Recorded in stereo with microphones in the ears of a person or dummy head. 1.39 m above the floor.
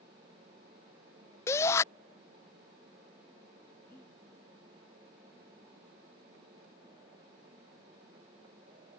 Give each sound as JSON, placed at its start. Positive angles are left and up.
{"t": 1.5, "sound": "a shout", "side_deg": 15}
{"t": 3.9, "sound": "breathing", "side_deg": 10}